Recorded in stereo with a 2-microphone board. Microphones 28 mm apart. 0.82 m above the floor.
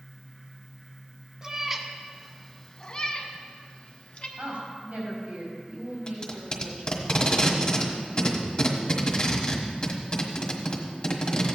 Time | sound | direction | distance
1.4 | a cat meowing | 20° right (ahead or behind) | 0.9 m
4.4 | a woman speaking | 55° right (ahead or behind) | 4.5 m
6.1 | tape being pulled | 35° left (ahead or behind) | 1.5 m